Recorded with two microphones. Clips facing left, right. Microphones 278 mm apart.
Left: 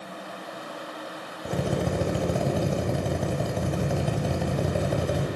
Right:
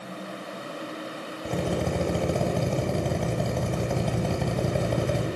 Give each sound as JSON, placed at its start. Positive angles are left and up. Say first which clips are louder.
{"t": 1.4, "sound": "a drill", "louder": "even", "side_deg": 5, "distance_m": 6.0}